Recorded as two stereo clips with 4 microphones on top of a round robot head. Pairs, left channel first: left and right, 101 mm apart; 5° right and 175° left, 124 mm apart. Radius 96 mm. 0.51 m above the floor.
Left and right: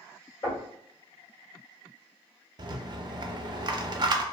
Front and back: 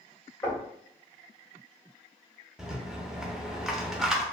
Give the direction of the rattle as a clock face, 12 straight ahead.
3 o'clock.